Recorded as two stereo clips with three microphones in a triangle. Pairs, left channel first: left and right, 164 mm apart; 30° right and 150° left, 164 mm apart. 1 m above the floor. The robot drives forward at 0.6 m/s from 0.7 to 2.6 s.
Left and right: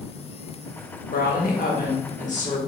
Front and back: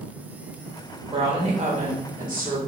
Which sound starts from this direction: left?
A woman speaking, at 1.1 s.